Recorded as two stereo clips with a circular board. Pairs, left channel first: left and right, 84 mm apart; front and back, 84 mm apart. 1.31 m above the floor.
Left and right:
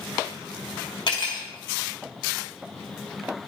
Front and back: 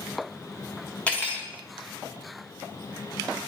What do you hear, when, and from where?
1.1 s cutlery clinking: 75° left, 1.5 m